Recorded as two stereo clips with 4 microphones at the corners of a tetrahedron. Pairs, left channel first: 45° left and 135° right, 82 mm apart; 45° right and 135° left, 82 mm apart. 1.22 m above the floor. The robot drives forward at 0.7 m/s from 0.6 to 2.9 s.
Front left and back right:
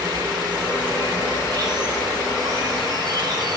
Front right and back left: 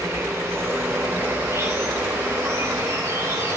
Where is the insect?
170° right, 3 m.